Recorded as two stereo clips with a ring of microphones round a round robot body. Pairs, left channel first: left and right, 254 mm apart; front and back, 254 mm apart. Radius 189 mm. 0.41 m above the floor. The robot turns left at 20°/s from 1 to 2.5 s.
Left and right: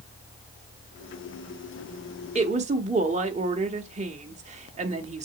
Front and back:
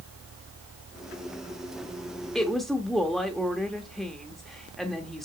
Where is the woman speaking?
85° right, 0.8 m.